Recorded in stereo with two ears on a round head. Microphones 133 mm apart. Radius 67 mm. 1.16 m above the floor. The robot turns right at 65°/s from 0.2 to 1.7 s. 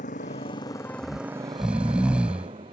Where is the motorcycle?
60° left (ahead or behind); by 2.7 s 40° right (ahead or behind).